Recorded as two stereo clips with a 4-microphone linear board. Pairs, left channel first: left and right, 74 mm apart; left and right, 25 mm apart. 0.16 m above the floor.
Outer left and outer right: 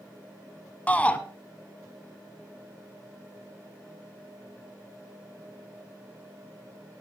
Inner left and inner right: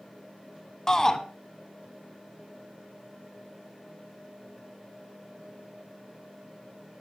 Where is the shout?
20° left (ahead or behind), 1.3 m.